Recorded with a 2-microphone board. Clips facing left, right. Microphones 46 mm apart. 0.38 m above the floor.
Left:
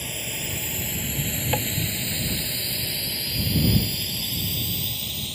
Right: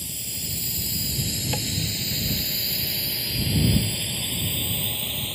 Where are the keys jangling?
I don't hear keys jangling.